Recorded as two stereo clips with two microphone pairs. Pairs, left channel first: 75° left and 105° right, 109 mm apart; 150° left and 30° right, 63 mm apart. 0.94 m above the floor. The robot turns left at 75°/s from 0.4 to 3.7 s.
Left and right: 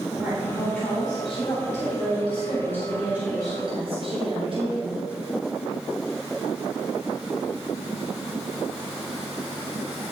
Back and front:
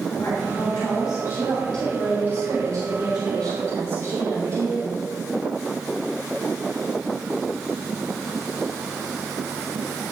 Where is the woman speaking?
Straight behind, 3.5 m; by 5.0 s 70° right, 3.5 m.